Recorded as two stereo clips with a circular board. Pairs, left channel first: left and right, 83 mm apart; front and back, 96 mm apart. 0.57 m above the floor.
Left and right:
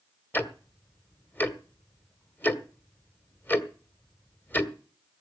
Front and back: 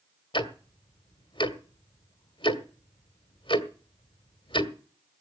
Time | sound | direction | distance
0.3 | ticking | 25° left | 1.4 m